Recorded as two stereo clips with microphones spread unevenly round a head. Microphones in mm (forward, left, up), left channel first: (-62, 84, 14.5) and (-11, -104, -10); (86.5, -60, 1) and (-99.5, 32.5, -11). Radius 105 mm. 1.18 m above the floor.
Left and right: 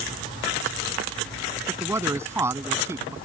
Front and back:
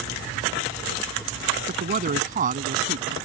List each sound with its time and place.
1.7 s a man speaking: 155° right